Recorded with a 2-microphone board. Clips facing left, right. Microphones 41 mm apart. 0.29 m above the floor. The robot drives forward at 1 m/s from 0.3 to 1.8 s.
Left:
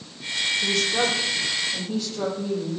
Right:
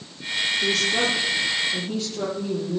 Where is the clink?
No clink in this recording.